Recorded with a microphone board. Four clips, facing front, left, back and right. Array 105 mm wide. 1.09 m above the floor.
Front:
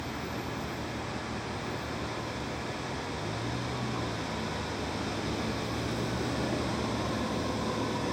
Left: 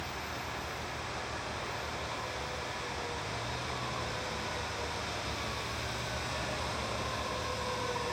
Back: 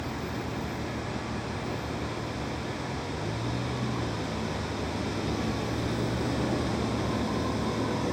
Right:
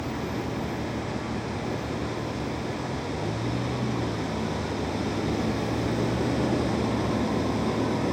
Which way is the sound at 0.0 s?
100° right.